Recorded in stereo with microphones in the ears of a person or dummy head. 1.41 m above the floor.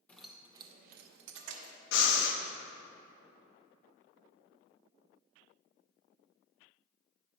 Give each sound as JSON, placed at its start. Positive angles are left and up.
{"t": 0.1, "sound": "keys jangling", "side_deg": 10, "distance_m": 0.9}
{"t": 1.9, "sound": "breathing", "side_deg": 65, "distance_m": 0.9}